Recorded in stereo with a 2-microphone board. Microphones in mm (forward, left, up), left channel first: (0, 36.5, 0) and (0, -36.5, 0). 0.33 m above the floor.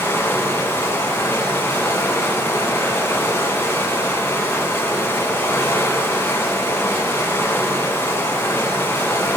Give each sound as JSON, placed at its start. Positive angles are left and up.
{"t": 0.0, "sound": "running water", "side_deg": 30, "distance_m": 1.8}